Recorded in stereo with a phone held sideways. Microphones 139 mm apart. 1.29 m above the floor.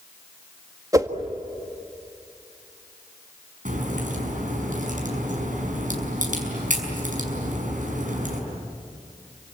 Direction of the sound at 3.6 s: 70° right (ahead or behind).